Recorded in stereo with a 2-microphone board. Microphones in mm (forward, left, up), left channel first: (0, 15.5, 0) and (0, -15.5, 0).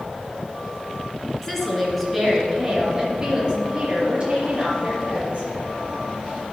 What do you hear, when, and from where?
1.4 s a woman speaking: 10° left (ahead or behind), 2.5 m; by 5.5 s 35° right (ahead or behind), 5.5 m